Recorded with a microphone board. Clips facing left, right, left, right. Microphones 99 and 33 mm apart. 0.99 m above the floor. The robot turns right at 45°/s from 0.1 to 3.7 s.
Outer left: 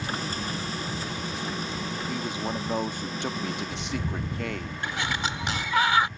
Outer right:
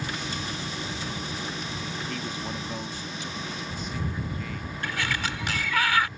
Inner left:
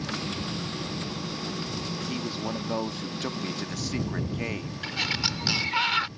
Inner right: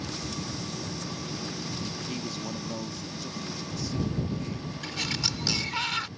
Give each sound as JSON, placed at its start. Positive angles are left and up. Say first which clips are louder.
{"t": 2.1, "sound": "a man speaking", "louder": "outer left 3 dB, inner left 3 dB", "azimuth_deg": 10}
{"t": 4.8, "sound": "a sliding door", "louder": "even, inner left 3 dB", "side_deg": 25}